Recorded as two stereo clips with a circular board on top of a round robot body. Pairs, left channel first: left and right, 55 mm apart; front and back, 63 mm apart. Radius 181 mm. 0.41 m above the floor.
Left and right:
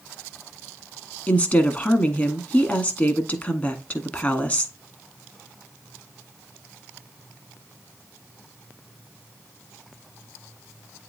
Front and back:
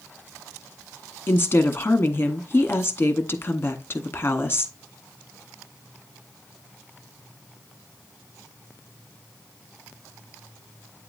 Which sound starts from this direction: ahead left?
A woman speaking, at 1.3 s.